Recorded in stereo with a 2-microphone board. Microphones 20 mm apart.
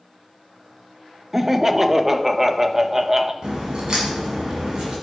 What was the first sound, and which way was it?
Laughter, 15° right (ahead or behind).